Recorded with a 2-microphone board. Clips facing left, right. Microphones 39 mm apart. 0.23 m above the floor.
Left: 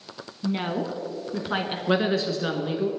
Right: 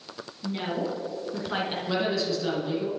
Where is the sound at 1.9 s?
40° left (ahead or behind), 3 m.